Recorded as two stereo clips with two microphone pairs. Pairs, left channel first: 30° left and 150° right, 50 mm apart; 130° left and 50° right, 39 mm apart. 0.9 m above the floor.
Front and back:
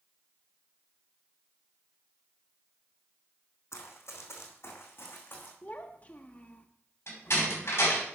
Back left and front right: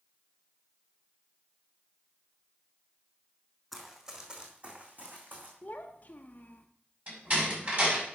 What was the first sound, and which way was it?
Running footsteps, 35° left.